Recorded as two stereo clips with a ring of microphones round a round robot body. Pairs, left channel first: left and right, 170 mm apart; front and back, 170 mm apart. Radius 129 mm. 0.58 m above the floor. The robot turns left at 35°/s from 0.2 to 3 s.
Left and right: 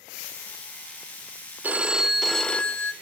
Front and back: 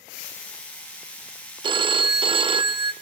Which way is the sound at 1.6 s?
160° right.